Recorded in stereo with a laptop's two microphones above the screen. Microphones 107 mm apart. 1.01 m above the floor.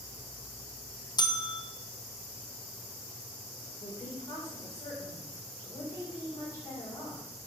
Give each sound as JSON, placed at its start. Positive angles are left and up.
{"t": 1.2, "sound": "a bell", "side_deg": 40, "distance_m": 0.7}
{"t": 3.6, "sound": "a woman speaking", "side_deg": 25, "distance_m": 3.5}